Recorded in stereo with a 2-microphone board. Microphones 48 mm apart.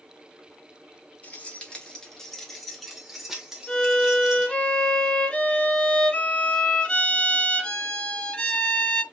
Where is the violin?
20° left (ahead or behind), 1.4 m.